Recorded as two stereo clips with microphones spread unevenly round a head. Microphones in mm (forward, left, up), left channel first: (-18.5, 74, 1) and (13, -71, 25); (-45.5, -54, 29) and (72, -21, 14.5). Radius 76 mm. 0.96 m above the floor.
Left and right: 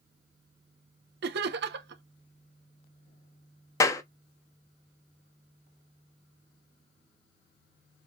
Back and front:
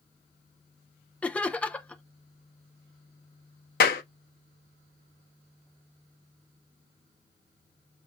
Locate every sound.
1.2 s laughter: 80° right, 0.8 m
3.8 s a clap: 175° left, 0.8 m